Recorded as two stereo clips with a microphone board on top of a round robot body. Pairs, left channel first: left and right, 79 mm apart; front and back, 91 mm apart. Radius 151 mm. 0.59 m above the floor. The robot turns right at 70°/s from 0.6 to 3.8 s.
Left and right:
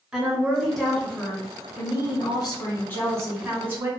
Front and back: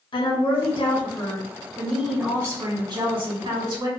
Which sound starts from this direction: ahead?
A woman speaking, at 0.1 s.